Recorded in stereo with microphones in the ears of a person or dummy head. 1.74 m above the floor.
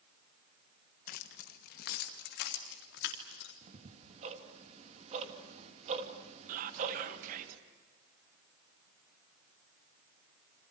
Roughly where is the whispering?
Right.